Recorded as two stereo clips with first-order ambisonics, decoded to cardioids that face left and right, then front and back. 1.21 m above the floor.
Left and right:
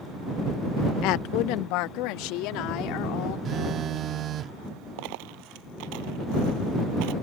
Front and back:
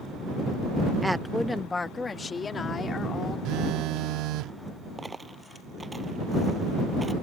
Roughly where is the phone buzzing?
Behind right.